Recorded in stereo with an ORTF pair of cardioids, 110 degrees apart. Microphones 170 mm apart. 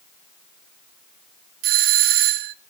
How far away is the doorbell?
About 0.8 m.